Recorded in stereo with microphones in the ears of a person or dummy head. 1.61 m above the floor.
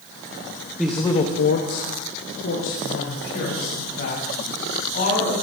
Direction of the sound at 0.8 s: 5° right (ahead or behind).